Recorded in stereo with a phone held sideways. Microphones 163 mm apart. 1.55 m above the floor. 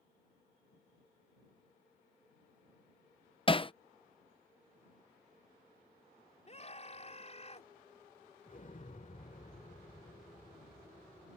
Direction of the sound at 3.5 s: 35° left (ahead or behind).